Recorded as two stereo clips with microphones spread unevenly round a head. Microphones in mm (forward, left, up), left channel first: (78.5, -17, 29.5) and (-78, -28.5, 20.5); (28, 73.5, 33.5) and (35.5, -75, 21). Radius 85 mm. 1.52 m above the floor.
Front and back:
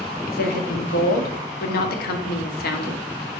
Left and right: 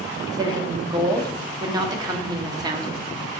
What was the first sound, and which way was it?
A woman speaking, 25° right.